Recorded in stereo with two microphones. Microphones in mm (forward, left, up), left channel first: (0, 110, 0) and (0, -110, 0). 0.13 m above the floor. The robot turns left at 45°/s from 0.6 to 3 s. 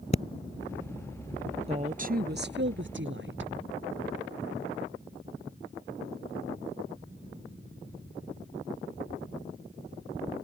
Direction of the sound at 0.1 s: 30° left (ahead or behind).